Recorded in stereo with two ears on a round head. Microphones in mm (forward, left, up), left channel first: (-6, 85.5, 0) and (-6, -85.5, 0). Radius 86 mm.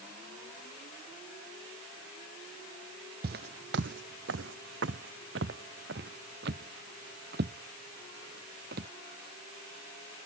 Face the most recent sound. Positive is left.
turn(degrees=-50)  # may be behind; listen again after turning